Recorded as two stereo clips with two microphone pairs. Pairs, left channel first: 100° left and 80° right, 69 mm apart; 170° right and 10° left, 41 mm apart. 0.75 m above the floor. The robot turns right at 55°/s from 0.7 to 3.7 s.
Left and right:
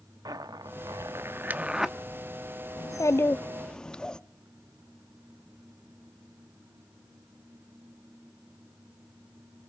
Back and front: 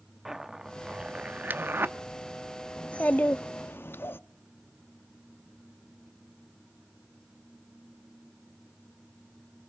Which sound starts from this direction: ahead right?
A zipper, at 0.2 s.